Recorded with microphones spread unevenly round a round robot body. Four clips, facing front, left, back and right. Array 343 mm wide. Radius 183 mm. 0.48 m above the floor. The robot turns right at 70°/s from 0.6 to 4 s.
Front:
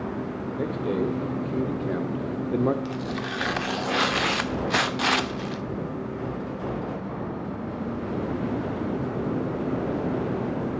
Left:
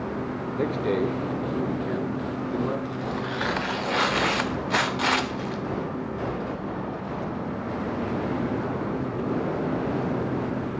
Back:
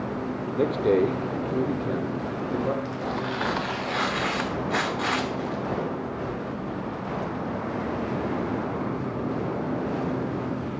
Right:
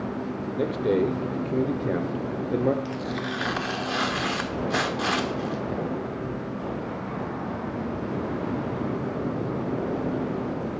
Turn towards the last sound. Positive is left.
turn(degrees=35)